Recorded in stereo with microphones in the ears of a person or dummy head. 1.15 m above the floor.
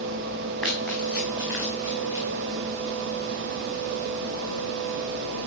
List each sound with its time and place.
0.6 s running footsteps: centre (ahead or behind), 3.5 m; by 2.2 s 15° right (ahead or behind), 4 m